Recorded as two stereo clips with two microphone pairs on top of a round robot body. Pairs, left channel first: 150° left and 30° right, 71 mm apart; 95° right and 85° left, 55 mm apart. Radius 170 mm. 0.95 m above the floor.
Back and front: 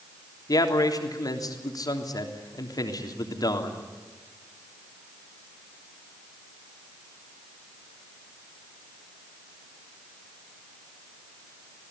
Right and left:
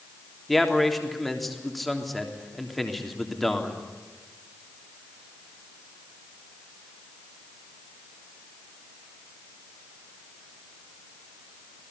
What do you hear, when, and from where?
0.5 s a man speaking: straight behind, 3.5 m